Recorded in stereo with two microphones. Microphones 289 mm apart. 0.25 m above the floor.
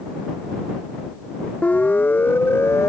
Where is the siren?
5° left (ahead or behind); by 2.9 s 10° left (ahead or behind).